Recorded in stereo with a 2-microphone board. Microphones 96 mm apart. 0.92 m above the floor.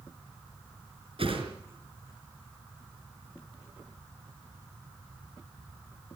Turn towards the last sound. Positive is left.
turn(degrees=-70)  # may be behind; listen again after turning